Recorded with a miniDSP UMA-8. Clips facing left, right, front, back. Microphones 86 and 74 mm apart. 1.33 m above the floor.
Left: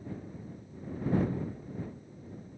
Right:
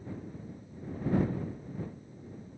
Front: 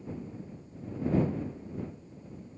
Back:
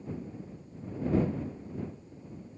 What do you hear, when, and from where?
Only background noise.